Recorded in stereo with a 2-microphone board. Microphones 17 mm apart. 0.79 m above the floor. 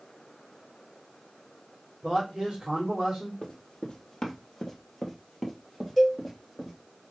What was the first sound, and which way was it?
A man speaking, 45° right (ahead or behind).